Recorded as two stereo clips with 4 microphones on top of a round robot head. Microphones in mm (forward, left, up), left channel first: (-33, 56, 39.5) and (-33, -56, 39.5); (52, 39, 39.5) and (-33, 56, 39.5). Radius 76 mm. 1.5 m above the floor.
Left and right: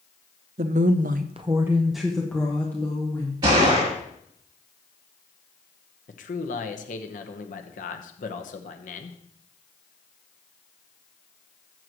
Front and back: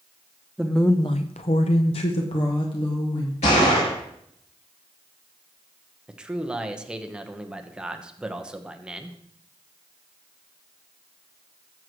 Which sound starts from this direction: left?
A man speaking, at 6.1 s.